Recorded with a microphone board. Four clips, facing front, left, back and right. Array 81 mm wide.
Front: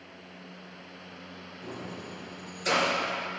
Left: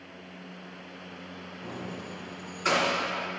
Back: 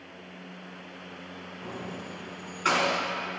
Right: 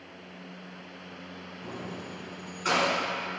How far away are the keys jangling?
About 2.0 m.